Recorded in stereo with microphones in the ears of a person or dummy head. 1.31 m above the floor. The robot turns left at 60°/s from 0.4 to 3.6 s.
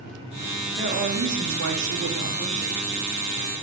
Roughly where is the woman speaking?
Ahead right.